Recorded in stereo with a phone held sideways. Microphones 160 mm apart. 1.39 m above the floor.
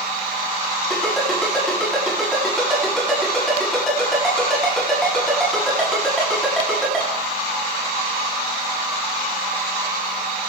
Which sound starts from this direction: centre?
A ringtone, at 0.9 s.